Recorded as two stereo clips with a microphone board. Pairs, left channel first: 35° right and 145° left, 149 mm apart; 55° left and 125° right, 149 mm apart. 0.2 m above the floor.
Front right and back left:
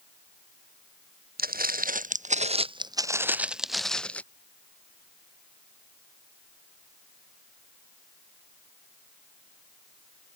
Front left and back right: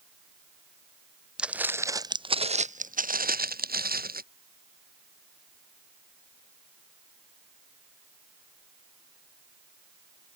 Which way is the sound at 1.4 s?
150° left.